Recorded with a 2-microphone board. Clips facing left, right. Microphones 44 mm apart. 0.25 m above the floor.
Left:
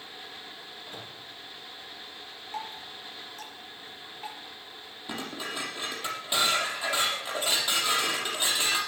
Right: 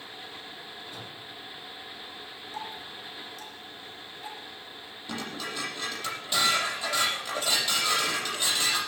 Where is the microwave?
50° left (ahead or behind), 6.5 m.